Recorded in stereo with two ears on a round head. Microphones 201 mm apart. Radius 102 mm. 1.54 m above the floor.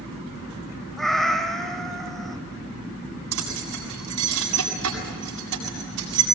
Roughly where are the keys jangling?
Right.